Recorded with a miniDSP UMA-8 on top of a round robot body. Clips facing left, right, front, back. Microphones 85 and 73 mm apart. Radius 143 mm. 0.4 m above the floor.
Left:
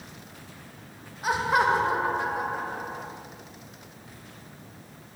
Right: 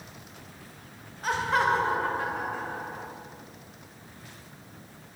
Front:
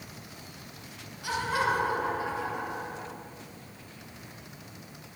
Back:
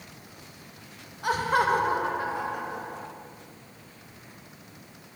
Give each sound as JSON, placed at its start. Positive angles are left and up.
{"t": 1.2, "sound": "laughter", "azimuth_deg": 165, "distance_m": 1.9}